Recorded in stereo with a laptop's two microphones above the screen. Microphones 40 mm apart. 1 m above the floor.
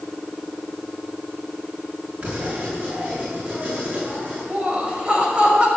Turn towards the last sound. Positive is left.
turn(degrees=-25)  # may be behind; listen again after turning